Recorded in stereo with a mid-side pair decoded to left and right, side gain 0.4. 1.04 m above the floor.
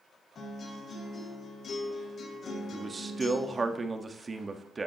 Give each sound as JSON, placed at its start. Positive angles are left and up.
{"t": 0.3, "sound": "a guitar", "azimuth_deg": 55, "distance_m": 4.5}
{"t": 2.7, "sound": "a man speaking", "azimuth_deg": -30, "distance_m": 1.4}